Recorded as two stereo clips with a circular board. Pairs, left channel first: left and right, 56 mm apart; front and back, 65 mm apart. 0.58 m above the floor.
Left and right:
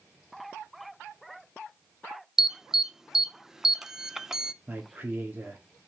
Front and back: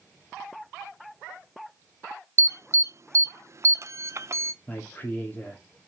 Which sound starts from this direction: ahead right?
A man speaking, at 4.7 s.